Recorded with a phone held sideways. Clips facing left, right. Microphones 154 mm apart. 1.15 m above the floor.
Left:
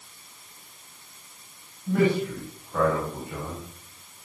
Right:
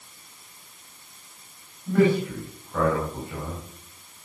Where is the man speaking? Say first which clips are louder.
Right 2 dB; 5° left (ahead or behind), 5.5 m.